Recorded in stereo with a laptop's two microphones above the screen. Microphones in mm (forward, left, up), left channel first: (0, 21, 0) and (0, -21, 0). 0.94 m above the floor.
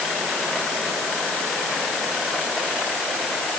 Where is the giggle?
I don't hear a giggle.